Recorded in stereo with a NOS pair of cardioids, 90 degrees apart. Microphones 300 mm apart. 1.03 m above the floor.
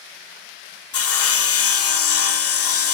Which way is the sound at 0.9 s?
50° left.